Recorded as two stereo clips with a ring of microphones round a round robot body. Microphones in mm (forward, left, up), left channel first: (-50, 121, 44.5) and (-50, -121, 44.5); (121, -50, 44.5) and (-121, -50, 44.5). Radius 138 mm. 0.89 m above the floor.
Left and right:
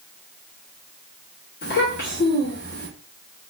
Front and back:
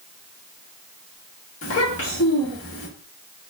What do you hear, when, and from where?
1.6 s a child speaking: 40° left, 1.2 m